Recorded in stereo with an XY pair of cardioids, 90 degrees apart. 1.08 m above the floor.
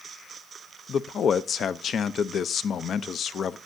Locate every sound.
0.9 s a man speaking: 60° left, 0.5 m